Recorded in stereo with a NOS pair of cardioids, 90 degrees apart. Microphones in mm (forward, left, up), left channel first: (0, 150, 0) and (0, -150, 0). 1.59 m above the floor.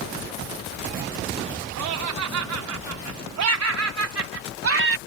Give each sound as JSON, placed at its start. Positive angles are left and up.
{"t": 1.8, "sound": "laughter", "azimuth_deg": -65}